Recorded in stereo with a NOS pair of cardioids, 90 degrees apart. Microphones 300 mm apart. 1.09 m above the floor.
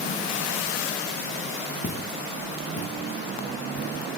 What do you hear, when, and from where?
1.8 s footsteps: 30° left, 3.5 m